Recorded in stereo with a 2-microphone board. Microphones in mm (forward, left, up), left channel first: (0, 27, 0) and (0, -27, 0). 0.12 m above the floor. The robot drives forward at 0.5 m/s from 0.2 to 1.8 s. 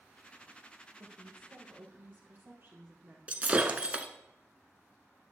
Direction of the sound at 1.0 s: 35° right (ahead or behind).